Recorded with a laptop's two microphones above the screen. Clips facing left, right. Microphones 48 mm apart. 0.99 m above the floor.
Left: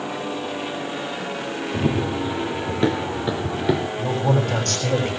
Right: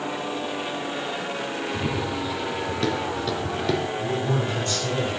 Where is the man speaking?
70° left (ahead or behind), 6.5 m.